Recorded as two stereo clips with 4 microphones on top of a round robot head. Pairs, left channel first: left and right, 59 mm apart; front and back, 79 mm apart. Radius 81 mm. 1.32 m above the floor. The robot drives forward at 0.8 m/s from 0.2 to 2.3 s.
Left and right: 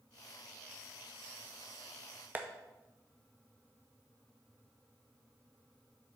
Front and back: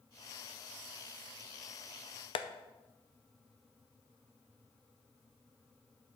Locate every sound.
2.4 s tapping: 25° right, 0.5 m